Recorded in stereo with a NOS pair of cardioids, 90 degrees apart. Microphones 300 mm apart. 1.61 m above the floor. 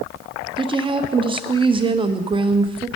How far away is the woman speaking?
About 0.8 m.